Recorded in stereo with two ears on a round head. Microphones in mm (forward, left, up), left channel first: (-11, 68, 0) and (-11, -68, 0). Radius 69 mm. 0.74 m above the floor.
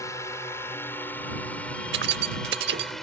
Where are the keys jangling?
85° right.